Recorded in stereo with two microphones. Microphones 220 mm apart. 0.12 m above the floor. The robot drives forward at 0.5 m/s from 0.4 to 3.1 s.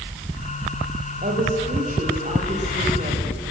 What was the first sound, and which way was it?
A woman speaking, 40° right (ahead or behind).